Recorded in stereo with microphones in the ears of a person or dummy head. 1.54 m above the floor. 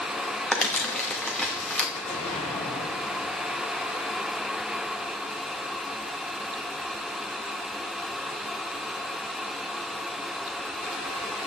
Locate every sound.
0.5 s crumpling: 10° left (ahead or behind), 2.5 m
1.9 s an explosion: 30° left (ahead or behind), 5 m